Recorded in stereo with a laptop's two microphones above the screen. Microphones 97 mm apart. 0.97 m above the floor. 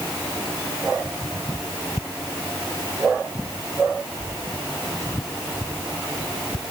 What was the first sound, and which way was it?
Only background noise.